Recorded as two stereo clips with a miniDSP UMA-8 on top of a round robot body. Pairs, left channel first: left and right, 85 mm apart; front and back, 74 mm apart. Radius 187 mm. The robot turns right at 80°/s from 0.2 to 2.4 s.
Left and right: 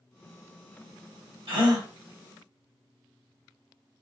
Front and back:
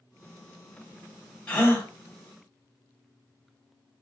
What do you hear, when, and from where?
1.5 s a gasp: 75° right, 1.3 m; by 1.9 s 40° right, 1.3 m